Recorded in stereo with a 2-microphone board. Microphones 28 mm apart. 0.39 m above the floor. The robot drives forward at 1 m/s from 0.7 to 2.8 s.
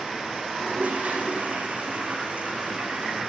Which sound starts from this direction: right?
A toilet flushing, at 0.6 s.